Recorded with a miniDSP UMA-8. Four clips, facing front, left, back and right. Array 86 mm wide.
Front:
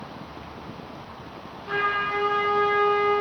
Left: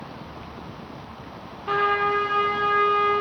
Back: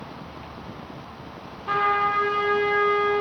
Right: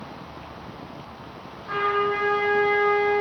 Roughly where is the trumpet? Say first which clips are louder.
Left 2 dB, back 4 dB; behind left.